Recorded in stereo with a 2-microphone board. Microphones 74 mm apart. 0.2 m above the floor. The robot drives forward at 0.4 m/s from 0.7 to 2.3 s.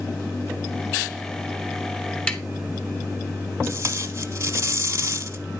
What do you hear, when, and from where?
2.3 s tapping: 15° left (ahead or behind), 0.8 m
3.6 s tape being pulled: 40° right (ahead or behind), 0.9 m